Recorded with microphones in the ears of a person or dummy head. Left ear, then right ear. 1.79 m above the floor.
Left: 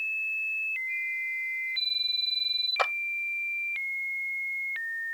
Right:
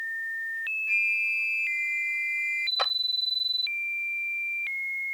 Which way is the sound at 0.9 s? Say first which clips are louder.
Right 6 dB; 60° right (ahead or behind).